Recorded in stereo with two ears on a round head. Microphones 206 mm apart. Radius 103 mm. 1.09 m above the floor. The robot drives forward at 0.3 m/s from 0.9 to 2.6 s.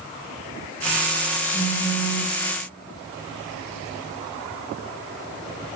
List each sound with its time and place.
1.5 s a phone buzzing: 45° left (ahead or behind), 0.7 m; by 2.3 s 35° left (ahead or behind), 0.9 m